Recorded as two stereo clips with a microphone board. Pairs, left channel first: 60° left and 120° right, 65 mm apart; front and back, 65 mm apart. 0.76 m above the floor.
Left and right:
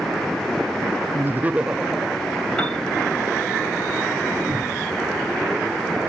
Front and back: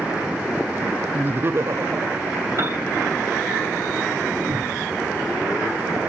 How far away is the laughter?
About 0.5 m.